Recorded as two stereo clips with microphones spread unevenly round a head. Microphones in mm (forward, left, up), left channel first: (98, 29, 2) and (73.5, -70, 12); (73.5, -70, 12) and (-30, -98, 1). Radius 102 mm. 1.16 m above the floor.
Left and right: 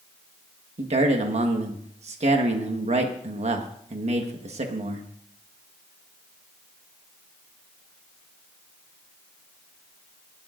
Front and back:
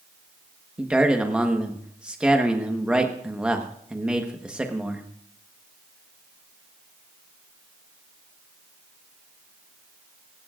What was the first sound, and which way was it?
A man speaking, 85° right.